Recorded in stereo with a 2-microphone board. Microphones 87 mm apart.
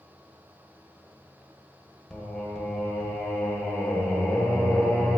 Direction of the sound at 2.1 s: 5° left (ahead or behind).